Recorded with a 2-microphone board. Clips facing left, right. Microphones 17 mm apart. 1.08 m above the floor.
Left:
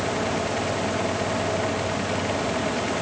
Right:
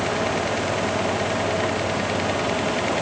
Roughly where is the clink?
I don't hear a clink.